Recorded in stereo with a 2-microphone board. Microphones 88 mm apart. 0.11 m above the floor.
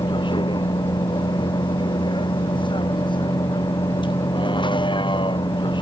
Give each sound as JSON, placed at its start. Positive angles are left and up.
{"t": 0.0, "sound": "a vehicle", "side_deg": 65}